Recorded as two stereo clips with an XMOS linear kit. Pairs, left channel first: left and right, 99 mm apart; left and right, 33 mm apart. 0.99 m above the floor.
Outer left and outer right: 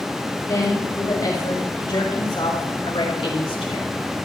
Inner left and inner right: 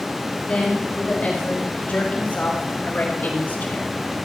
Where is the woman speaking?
40° left (ahead or behind), 5 m; by 3.9 s 75° left (ahead or behind), 3 m.